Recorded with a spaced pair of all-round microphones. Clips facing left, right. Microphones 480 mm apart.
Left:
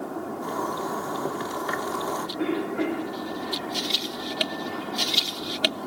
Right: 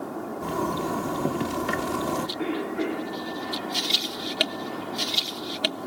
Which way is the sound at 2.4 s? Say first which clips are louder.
Left 5 dB; 65° left (ahead or behind).